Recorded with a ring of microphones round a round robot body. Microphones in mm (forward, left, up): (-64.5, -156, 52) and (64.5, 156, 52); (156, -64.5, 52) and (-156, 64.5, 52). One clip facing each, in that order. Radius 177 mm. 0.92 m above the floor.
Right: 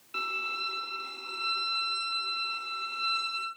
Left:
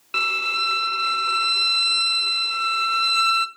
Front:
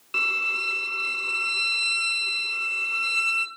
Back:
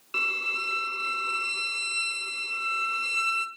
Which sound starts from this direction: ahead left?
A violin, at 0.1 s.